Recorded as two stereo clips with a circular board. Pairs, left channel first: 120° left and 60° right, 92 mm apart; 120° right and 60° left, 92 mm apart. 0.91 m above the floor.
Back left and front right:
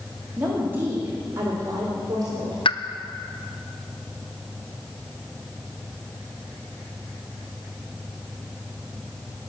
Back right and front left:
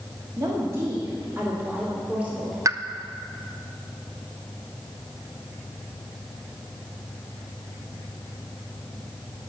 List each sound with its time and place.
0.4 s a woman speaking: 15° left, 2 m; by 2.5 s 20° right, 3 m
2.6 s a pop: 110° left, 0.5 m